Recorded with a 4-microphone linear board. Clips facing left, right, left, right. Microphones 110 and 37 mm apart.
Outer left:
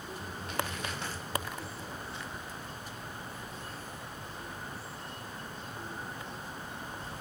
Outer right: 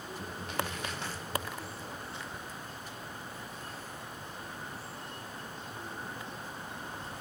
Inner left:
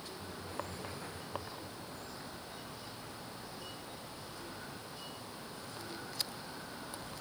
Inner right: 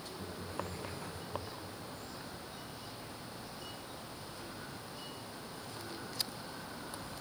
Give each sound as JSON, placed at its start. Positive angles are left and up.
{"t": 0.2, "sound": "laughter", "side_deg": -75, "distance_m": 7.0}